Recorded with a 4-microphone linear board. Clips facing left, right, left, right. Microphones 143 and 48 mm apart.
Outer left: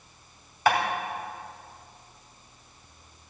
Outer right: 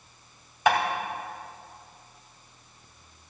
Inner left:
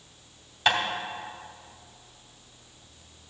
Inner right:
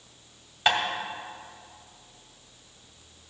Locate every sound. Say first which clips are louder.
0.7 s tapping: outer right 1 dB, even; 20° right (ahead or behind), 2 m